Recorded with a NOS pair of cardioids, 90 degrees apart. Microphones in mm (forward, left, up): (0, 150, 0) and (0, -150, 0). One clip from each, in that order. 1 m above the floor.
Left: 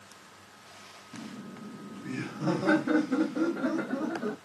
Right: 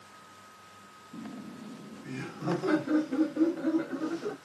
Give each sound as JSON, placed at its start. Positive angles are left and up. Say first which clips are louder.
{"t": 1.1, "sound": "laughter", "louder": "right 1 dB", "azimuth_deg": -5, "distance_m": 1.3}